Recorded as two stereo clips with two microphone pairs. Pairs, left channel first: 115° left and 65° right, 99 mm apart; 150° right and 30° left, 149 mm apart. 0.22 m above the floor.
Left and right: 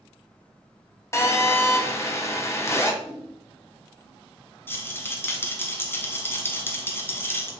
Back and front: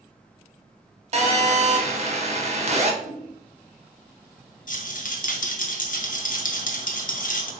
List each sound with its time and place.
1.1 s a phone buzzing: 60° left, 0.6 m
3.0 s a whoosh: 25° right, 1.6 m
4.7 s a rattle: 175° right, 0.5 m